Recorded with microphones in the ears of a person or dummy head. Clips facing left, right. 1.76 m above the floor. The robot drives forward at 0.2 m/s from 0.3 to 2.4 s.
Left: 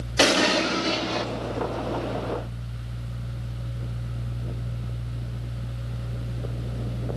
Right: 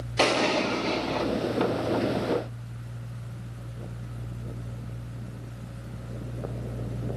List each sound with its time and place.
0.2 s an explosion: 15° left (ahead or behind), 0.6 m; by 1.3 s 10° left (ahead or behind), 0.8 m